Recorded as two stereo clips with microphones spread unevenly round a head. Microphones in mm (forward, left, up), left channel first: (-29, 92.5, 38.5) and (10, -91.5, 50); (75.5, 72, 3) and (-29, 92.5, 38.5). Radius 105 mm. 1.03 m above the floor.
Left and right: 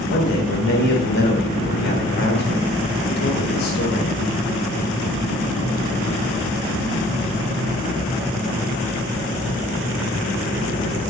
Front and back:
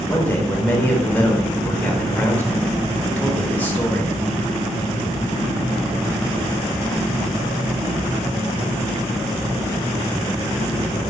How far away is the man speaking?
About 3.5 m.